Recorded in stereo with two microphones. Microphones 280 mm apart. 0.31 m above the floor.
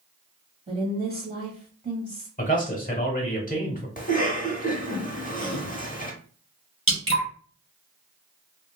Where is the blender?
I don't hear a blender.